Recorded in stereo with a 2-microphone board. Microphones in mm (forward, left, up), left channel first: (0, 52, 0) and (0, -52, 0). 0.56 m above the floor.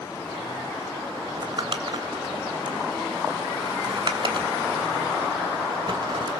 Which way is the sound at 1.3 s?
50° right (ahead or behind).